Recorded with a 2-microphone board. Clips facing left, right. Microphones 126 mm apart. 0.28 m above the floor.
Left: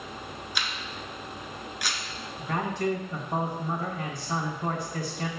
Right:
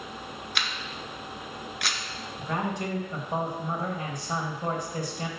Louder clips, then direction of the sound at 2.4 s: Left 2 dB; 20° right (ahead or behind).